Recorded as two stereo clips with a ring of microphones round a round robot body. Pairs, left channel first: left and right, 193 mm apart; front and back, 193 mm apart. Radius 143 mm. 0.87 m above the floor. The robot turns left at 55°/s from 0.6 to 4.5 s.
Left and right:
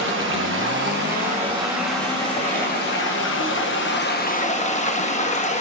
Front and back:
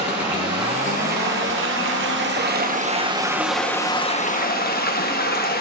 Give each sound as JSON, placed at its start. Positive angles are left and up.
{"t": 0.0, "sound": "running water", "azimuth_deg": -110, "distance_m": 1.1}